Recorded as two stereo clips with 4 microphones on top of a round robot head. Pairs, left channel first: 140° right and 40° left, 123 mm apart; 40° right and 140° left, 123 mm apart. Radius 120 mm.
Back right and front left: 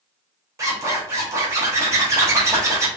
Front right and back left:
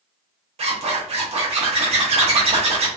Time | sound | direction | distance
0.6 | a zipper | 105° left | 0.8 m